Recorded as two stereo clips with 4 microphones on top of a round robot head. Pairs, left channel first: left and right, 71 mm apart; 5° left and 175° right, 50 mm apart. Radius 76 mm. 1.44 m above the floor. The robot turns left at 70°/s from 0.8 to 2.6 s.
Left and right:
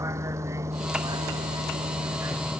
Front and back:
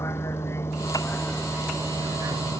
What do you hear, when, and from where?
0.0 s a vehicle: 45° right; by 2.6 s 170° right